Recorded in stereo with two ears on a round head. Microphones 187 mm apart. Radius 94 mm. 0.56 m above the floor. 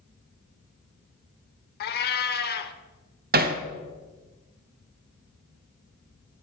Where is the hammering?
45° right (ahead or behind), 1.0 m.